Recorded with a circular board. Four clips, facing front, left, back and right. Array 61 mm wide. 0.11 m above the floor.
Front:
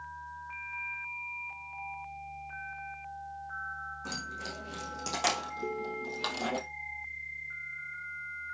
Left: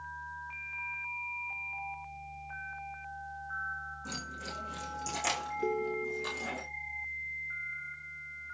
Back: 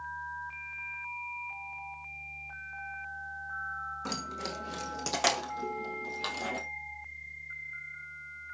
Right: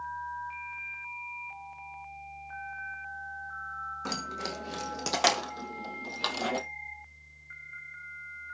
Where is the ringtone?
85° left, 0.8 m.